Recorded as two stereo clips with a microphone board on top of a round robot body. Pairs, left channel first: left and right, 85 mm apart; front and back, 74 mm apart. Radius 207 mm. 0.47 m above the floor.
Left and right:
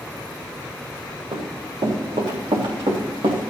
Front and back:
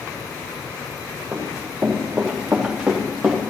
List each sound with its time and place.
1.3 s running footsteps: 115° right, 5 m; by 3.4 s 100° right, 3.5 m